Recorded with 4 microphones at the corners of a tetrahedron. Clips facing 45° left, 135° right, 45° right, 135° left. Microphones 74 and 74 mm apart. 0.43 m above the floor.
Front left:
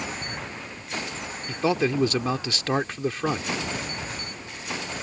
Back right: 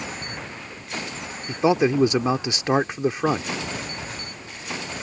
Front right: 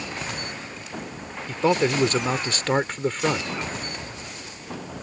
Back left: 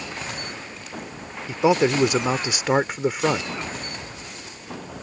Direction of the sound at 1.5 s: 165° right.